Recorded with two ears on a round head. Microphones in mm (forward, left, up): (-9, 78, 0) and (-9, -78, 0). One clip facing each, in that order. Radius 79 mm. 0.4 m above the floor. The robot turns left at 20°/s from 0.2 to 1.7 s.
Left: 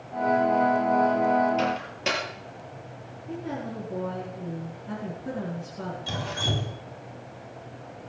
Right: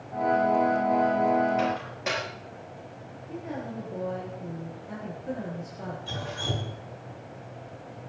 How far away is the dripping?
About 3 m.